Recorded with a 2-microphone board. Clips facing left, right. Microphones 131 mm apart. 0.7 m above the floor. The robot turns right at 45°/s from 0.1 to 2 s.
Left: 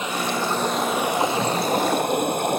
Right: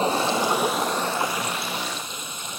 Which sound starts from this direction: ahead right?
Running water, at 0.0 s.